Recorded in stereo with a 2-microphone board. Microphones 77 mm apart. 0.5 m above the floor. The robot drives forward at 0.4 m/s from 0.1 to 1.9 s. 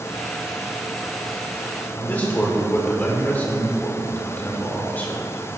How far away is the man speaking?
About 1.3 m.